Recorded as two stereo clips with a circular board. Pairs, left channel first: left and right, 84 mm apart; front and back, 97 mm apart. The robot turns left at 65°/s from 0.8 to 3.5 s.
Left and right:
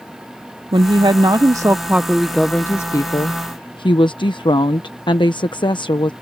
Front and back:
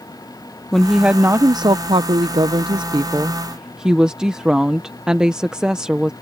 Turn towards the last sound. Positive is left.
turn(degrees=100)